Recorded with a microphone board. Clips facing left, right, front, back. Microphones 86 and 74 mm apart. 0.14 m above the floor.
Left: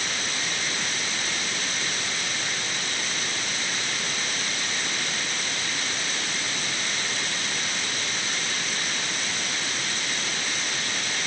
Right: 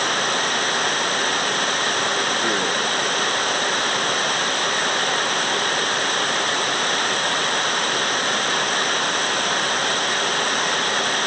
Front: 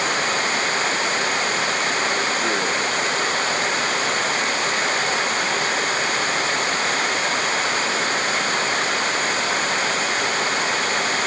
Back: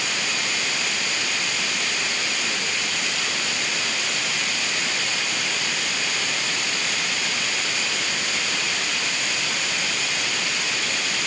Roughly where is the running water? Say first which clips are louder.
Right 10 dB, front 6 dB; ahead right.